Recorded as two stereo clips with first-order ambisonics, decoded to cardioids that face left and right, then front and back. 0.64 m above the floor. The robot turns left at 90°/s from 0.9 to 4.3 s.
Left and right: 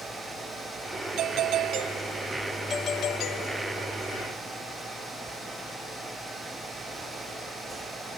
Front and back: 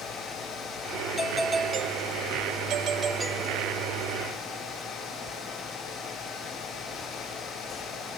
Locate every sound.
1.2 s a doorbell: 70° right; by 4.0 s 35° left